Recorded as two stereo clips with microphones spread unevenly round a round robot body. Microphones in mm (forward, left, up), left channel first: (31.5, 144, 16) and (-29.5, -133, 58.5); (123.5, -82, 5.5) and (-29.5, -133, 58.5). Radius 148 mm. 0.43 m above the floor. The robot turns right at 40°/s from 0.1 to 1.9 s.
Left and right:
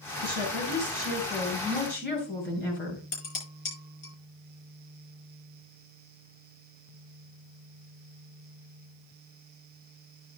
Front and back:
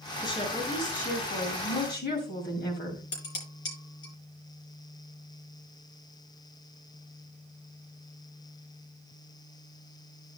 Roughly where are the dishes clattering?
Ahead left.